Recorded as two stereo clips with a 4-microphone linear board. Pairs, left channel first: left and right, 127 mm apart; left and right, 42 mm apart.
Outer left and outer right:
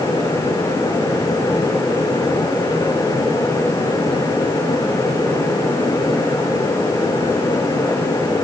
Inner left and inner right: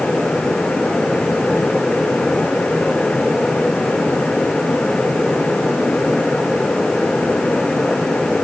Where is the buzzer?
No buzzer in this recording.